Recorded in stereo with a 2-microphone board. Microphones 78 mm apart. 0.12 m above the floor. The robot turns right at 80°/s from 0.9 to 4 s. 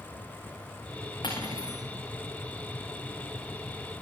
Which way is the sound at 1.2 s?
110° left.